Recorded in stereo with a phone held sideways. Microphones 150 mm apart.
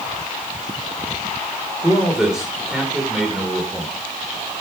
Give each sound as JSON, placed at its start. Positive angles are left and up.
{"t": 1.8, "sound": "a man speaking", "side_deg": -5, "distance_m": 5.0}